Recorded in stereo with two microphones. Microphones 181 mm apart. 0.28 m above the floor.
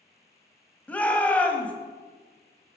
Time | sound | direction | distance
0.9 | a shout | 10° left (ahead or behind) | 1.4 m